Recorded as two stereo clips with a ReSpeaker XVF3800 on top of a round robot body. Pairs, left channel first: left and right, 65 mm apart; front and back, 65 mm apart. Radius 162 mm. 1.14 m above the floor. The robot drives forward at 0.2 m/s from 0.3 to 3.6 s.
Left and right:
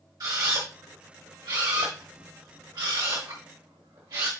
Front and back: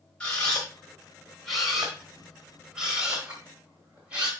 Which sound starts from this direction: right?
A camera shutter, at 0.2 s.